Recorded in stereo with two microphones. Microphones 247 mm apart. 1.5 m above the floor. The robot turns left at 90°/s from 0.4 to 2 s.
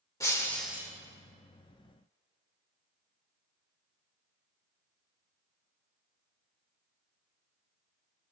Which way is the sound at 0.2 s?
20° left.